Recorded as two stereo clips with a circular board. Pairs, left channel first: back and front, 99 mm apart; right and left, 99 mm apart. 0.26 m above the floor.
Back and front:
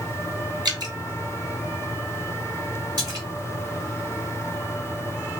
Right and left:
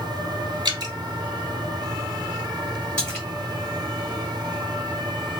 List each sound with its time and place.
0.7 s dripping: 45° left, 1.1 m
3.0 s a splash: 15° right, 2 m